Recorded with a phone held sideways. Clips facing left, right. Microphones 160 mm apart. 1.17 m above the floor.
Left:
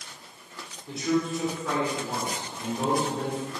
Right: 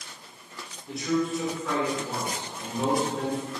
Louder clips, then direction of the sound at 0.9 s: Even; 20° left (ahead or behind).